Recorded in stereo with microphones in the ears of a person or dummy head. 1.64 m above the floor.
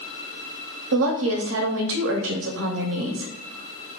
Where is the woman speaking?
70° right (ahead or behind), 0.7 m.